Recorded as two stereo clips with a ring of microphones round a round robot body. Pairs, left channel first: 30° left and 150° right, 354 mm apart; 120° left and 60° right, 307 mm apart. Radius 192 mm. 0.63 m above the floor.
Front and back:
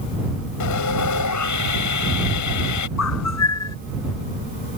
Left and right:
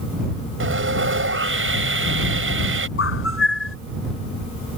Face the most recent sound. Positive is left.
turn(degrees=75)